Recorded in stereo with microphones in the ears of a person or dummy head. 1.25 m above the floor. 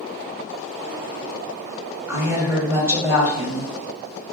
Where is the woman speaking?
15° right (ahead or behind), 1.0 m.